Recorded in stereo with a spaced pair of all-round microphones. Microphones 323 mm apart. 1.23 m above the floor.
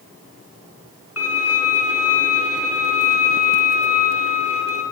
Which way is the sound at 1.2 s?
50° left (ahead or behind).